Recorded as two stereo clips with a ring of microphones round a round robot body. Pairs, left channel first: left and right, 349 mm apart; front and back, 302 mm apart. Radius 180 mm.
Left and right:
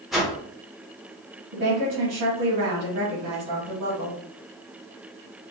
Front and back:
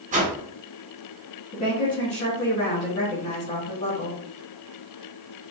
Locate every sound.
0.1 s a whoosh: straight behind, 1.3 m
1.5 s a woman speaking: 60° right, 2 m